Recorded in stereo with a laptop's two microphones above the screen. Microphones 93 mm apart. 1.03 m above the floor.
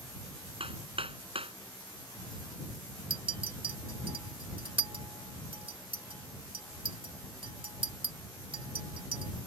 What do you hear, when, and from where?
0.6 s hammering: 80° right
3.1 s a clink: 65° right (ahead or behind)